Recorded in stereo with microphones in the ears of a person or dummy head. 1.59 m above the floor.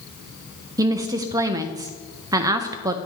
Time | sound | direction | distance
0.8 | a woman speaking | 20° right (ahead or behind) | 0.5 m